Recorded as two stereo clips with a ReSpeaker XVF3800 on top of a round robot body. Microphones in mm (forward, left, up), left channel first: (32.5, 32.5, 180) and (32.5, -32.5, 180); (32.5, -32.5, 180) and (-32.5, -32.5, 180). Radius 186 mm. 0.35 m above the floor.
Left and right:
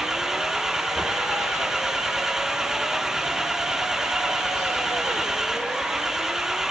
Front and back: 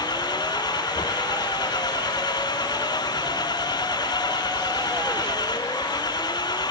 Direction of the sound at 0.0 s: 5° right.